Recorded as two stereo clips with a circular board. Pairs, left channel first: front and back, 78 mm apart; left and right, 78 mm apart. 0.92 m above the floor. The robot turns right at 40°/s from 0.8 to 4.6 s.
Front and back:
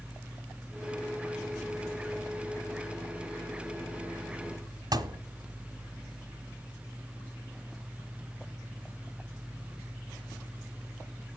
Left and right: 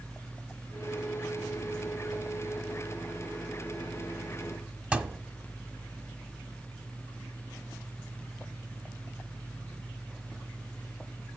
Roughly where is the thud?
Behind.